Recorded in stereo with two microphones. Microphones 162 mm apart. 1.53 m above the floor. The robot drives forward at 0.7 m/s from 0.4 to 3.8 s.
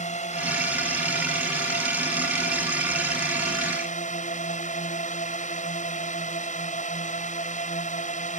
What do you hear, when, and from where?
0.0 s a drone: 45° left (ahead or behind); by 8.4 s 50° left (ahead or behind)